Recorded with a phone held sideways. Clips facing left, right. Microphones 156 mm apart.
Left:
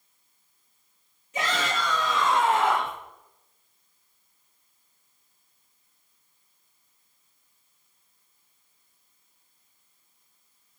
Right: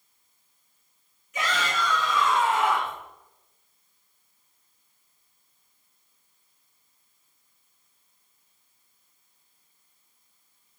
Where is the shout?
30° left (ahead or behind), 3 m; by 3.0 s 60° left (ahead or behind), 2.5 m.